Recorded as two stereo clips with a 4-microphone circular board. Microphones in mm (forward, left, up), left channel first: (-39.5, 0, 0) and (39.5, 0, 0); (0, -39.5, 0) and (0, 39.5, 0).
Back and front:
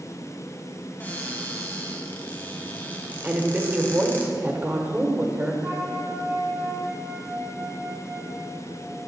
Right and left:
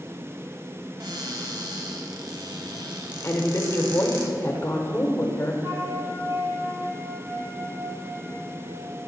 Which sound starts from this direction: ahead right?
A woman speaking, at 3.2 s.